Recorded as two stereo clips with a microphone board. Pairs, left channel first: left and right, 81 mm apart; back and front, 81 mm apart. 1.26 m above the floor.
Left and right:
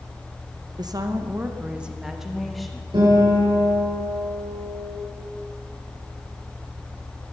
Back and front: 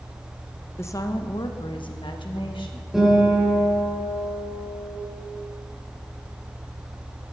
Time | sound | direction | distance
0.8 | a woman speaking | 120° right | 0.7 m
2.9 | a guitar | 85° right | 6.5 m